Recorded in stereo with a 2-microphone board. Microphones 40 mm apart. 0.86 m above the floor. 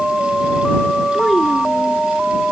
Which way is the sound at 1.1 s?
Centre (ahead or behind).